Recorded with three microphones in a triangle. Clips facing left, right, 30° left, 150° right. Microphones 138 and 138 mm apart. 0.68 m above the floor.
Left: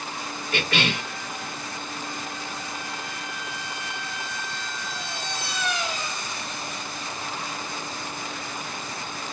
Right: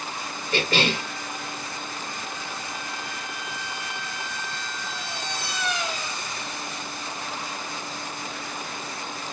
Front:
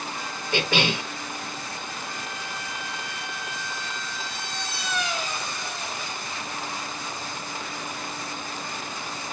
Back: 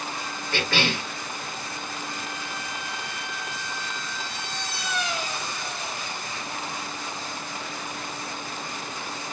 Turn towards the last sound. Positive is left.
turn(degrees=-40)